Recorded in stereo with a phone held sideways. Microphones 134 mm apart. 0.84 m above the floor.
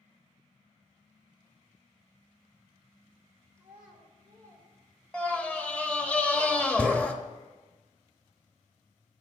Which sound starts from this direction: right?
A child speaking, at 3.6 s.